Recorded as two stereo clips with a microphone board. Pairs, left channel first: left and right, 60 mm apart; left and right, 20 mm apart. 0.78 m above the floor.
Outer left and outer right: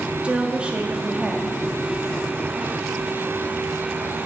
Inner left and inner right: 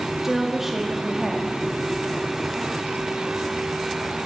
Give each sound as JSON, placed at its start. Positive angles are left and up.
{"t": 0.2, "sound": "a woman speaking", "side_deg": -20, "distance_m": 1.2}